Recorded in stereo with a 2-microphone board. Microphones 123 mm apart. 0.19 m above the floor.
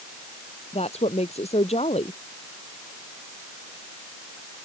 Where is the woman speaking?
60° left (ahead or behind).